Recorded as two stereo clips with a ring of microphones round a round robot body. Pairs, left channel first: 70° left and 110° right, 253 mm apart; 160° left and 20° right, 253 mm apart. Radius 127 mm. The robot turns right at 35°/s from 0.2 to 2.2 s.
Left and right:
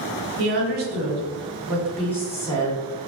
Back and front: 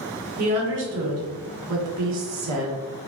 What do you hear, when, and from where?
0.4 s a woman speaking: 75° right, 1.8 m; by 2.8 s 15° right, 1.8 m